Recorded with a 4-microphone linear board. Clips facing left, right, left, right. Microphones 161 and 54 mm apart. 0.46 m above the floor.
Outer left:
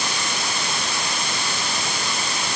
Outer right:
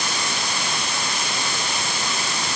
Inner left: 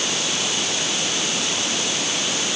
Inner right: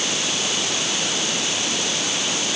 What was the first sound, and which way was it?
Only background noise.